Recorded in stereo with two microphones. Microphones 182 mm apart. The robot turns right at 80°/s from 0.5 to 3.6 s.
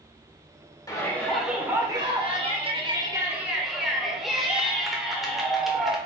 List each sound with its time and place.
0.9 s a shout: 20° left (ahead or behind), 0.8 m; by 6.0 s centre (ahead or behind), 0.8 m